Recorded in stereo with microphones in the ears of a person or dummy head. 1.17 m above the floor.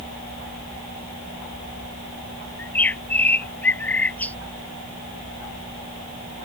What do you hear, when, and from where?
2.6 s a bird: 10° left (ahead or behind)